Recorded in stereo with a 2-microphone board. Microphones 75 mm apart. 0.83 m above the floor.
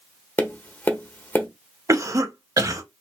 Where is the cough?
45° right (ahead or behind), 0.8 m.